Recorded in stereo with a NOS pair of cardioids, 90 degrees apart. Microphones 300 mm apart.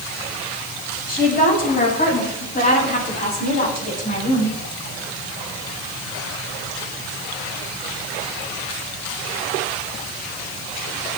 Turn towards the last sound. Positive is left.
turn(degrees=25)